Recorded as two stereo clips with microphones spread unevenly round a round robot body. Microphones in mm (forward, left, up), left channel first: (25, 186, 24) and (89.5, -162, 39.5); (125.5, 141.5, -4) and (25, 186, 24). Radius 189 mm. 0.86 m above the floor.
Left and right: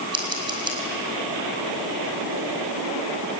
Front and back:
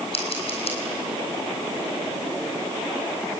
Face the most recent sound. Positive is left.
turn(degrees=-5)